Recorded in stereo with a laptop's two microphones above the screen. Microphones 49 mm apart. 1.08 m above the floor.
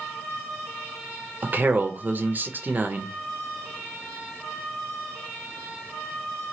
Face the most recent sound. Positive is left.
turn(degrees=-40)  # may be behind; listen again after turning